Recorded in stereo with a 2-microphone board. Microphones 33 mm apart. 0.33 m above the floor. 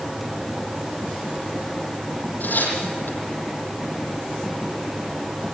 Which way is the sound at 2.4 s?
65° left (ahead or behind).